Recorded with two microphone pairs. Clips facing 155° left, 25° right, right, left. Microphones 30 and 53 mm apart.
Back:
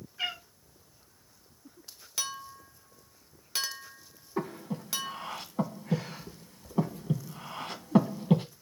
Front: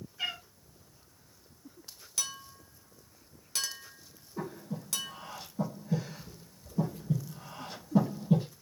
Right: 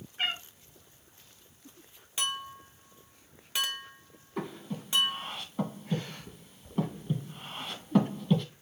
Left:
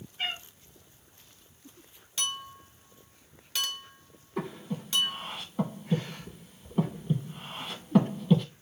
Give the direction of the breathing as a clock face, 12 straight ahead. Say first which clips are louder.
Back 4 dB, left 2 dB; 6 o'clock.